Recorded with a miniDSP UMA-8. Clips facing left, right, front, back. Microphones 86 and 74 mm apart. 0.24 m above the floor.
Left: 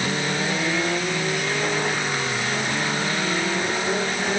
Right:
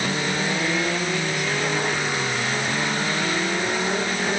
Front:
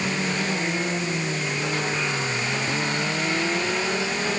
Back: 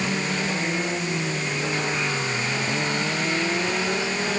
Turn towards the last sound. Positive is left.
No sound to turn to.